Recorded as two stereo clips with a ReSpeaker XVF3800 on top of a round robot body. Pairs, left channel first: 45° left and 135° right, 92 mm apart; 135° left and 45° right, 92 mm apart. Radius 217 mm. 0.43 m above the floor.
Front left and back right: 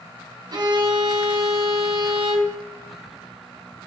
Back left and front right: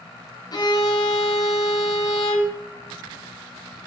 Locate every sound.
0.5 s a violin: straight behind, 3.5 m